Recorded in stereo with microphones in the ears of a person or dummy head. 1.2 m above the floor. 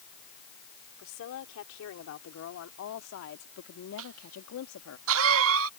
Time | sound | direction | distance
1.0 | a woman speaking | 80° left | ?
4.0 | a cough | 70° right (ahead or behind) | ?